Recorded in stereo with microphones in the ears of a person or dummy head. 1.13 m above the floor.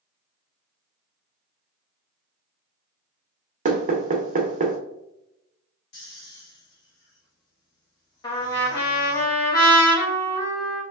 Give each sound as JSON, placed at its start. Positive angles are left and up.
{"t": 3.6, "sound": "knocking", "side_deg": -40, "distance_m": 0.5}
{"t": 5.9, "sound": "snoring", "side_deg": 65, "distance_m": 0.9}
{"t": 8.2, "sound": "a trumpet", "side_deg": 30, "distance_m": 1.2}